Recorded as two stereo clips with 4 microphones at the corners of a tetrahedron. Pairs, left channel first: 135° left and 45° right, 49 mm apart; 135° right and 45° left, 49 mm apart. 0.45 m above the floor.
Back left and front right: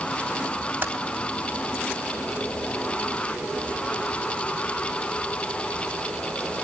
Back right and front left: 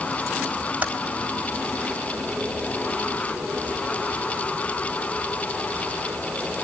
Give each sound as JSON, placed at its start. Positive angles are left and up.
{"t": 0.8, "sound": "typing on a keyboard", "azimuth_deg": -15, "distance_m": 3.5}